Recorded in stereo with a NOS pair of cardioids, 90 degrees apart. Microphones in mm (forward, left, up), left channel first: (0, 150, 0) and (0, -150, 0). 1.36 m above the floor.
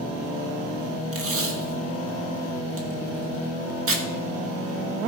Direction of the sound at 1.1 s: 45° right.